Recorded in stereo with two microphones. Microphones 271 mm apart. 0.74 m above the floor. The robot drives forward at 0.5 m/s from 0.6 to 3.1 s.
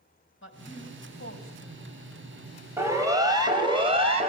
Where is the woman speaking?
45° left (ahead or behind), 4.5 m; by 2.0 s 55° left (ahead or behind), 4 m.